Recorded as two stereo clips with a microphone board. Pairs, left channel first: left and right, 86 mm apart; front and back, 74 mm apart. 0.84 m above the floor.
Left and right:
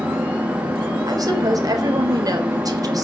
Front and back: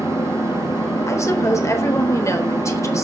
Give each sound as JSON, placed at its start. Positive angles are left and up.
{"t": 0.0, "sound": "an engine running", "azimuth_deg": -25, "distance_m": 4.0}
{"t": 1.1, "sound": "a woman speaking", "azimuth_deg": -50, "distance_m": 4.0}